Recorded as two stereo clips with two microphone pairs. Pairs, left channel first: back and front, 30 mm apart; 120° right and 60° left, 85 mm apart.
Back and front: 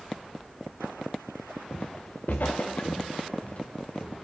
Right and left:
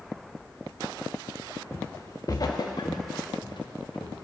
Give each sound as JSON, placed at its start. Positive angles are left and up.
{"t": 1.7, "sound": "footsteps", "azimuth_deg": 170, "distance_m": 1.1}